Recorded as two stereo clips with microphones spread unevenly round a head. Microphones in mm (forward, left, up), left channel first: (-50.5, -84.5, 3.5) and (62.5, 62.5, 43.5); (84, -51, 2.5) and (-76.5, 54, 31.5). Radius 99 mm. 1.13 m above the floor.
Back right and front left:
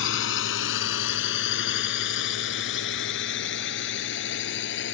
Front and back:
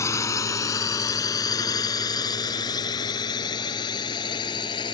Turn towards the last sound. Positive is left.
turn(degrees=-100)